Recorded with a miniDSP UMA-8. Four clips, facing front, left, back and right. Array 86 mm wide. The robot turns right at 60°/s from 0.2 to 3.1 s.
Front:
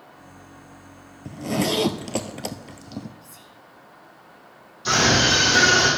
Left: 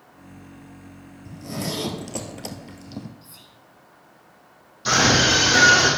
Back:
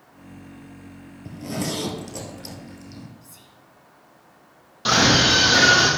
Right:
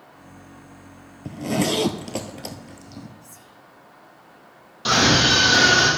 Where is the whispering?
90° left, 1.1 m.